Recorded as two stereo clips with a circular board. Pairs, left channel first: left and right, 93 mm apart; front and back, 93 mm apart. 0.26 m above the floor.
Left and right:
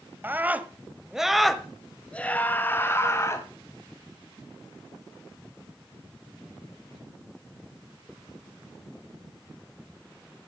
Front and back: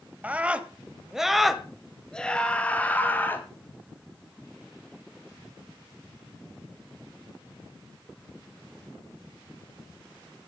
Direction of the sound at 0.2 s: 125° right.